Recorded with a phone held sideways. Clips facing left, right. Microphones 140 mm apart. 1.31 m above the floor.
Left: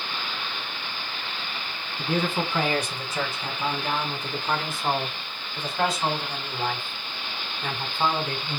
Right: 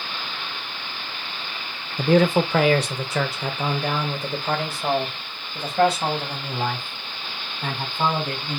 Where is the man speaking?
75° right (ahead or behind), 0.7 m; by 8.6 s 60° right (ahead or behind), 4 m.